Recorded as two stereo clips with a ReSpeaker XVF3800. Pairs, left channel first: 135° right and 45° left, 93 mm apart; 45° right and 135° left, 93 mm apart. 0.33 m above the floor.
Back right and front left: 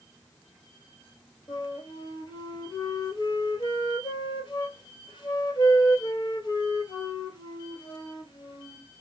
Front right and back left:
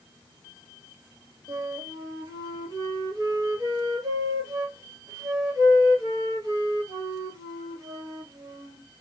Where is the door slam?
I don't hear a door slam.